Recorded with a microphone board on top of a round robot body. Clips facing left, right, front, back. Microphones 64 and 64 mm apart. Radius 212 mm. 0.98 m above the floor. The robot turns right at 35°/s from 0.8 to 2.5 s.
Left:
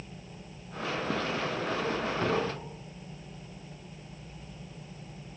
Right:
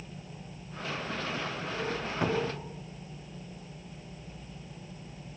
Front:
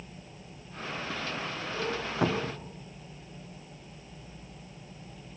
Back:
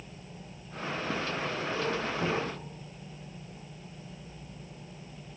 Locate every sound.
2.2 s a cupboard door: 15° right, 0.8 m; by 2.7 s 5° right, 0.8 m